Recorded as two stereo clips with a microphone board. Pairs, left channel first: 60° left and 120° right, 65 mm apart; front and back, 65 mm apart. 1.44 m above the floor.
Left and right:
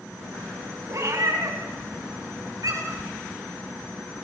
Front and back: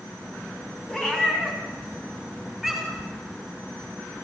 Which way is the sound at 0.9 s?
80° right.